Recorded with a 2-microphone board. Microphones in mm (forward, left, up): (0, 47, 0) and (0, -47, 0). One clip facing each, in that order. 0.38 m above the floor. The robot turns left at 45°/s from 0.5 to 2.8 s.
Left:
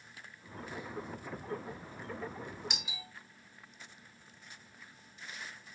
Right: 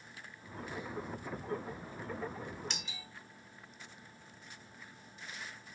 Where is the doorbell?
15° left (ahead or behind), 1.5 m; by 3.1 s 10° left (ahead or behind), 1.5 m.